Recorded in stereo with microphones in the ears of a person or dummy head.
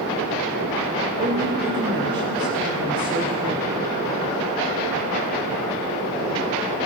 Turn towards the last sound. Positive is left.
turn(degrees=-25)  # may be behind; listen again after turning